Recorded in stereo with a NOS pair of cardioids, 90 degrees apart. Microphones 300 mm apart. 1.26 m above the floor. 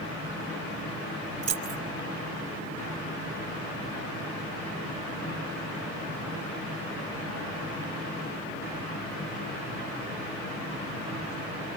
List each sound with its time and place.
1.4 s keys jangling: 55° right, 1.8 m